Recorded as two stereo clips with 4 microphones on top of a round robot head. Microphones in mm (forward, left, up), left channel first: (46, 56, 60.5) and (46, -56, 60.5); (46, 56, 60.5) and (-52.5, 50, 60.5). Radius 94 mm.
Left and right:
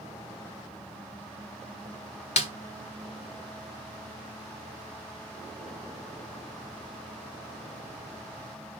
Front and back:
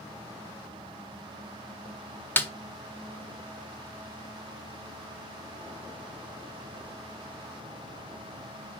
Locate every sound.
2.4 s a snare drum: 70° left, 1.3 m